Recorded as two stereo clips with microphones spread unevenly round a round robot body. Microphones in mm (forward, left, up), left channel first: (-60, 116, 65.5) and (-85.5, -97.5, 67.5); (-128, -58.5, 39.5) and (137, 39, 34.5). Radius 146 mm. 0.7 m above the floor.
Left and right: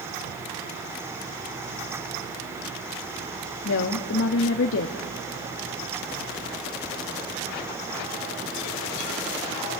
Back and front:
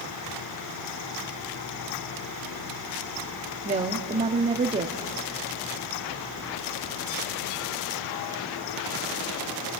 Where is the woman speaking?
85° left, 1.0 m.